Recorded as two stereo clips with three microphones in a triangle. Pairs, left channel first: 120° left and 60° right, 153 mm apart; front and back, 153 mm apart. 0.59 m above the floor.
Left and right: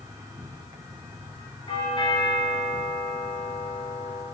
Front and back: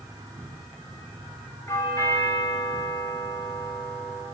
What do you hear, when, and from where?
0.0 s an insect: 125° right, 1.9 m
1.7 s a doorbell: 65° left, 5.5 m